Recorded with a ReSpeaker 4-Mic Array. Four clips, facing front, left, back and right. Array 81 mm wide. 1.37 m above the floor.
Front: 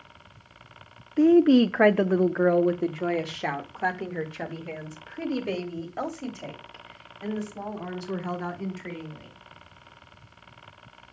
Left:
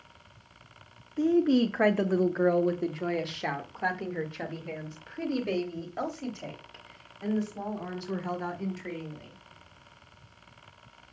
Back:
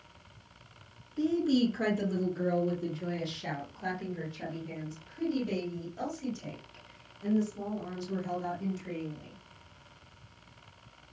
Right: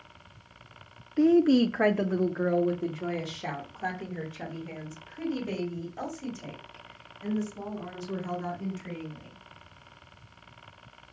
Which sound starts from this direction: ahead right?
A woman speaking, at 1.2 s.